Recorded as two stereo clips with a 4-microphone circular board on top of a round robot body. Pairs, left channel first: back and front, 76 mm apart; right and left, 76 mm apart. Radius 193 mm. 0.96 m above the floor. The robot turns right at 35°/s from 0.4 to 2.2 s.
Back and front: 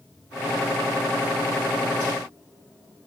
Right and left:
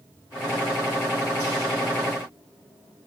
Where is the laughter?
No laughter in this recording.